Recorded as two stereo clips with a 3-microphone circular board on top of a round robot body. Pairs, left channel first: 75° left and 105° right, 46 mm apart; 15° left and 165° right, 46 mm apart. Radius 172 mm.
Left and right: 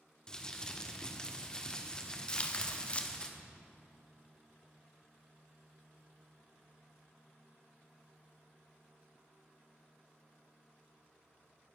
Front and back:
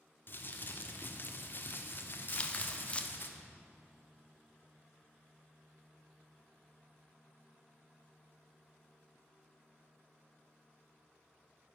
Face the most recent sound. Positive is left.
turn(degrees=45)